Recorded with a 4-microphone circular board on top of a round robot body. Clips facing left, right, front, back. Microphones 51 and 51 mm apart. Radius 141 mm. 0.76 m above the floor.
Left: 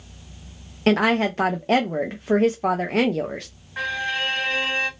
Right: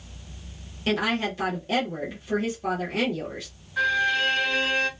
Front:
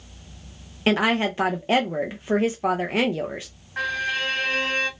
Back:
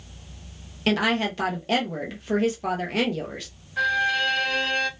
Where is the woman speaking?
65° left, 0.6 m.